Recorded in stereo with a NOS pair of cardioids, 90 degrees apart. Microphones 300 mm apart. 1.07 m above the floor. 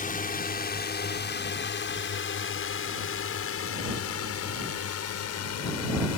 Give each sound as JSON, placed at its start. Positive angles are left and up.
{"t": 0.0, "sound": "a drone", "azimuth_deg": 30}